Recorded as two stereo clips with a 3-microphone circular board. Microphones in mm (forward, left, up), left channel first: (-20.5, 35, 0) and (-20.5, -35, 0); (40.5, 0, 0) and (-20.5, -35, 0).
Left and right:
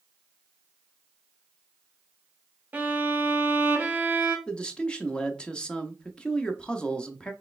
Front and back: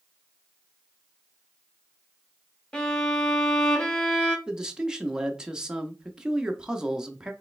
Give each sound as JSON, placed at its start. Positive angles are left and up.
{"t": 2.7, "sound": "a violin", "azimuth_deg": -40, "distance_m": 1.1}
{"t": 4.5, "sound": "a man speaking", "azimuth_deg": 145, "distance_m": 0.7}